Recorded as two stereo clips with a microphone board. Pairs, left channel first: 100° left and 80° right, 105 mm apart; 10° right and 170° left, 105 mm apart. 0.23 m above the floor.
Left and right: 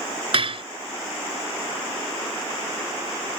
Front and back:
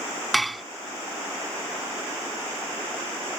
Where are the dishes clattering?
100° right.